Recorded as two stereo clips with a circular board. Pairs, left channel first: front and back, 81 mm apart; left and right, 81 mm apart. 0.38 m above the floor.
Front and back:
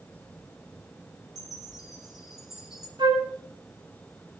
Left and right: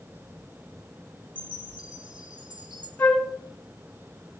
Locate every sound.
1.4 s a chime: 95° right, 2 m
3.0 s a flute: 155° left, 2.5 m